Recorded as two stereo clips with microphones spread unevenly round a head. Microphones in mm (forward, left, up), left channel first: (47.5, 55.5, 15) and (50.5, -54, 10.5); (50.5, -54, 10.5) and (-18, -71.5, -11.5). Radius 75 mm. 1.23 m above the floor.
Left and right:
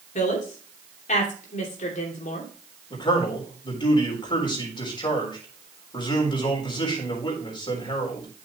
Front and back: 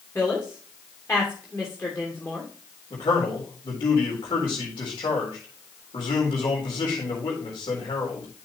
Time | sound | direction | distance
0.1 | a woman speaking | 90° left | 2.5 m
2.9 | a man speaking | 50° left | 4 m